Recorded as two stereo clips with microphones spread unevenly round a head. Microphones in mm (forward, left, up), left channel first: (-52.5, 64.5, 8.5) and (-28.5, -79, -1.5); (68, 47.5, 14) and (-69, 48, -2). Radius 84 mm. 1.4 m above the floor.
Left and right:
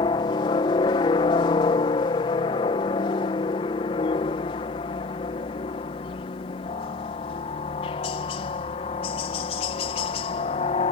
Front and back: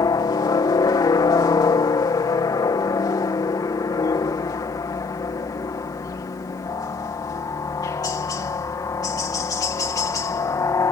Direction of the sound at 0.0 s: 50° left.